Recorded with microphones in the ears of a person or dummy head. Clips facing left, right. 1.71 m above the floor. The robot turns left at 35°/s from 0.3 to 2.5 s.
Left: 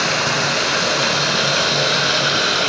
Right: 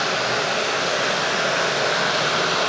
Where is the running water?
110° left, 3.5 m; by 2.7 s 35° left, 3.5 m.